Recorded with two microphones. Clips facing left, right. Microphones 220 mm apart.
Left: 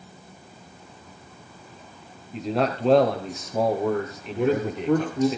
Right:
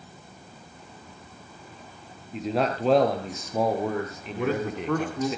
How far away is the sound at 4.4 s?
About 1.8 m.